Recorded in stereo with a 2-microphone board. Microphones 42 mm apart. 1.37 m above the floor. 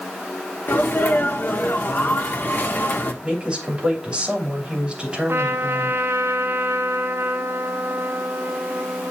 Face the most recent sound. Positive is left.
turn(degrees=-75)  # may be behind; listen again after turning